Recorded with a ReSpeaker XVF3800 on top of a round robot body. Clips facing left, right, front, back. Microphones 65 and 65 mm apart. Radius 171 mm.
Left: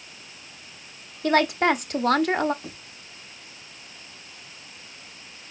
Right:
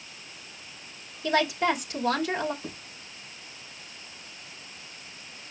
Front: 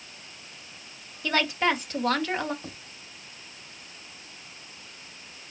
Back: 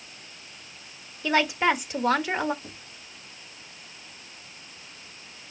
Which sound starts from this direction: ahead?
Writing, at 2.6 s.